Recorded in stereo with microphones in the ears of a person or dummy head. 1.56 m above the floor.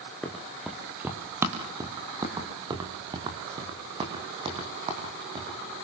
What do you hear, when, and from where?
0.2 s running footsteps: 5° left (ahead or behind), 2.5 m; by 5.6 s 30° right (ahead or behind), 6.5 m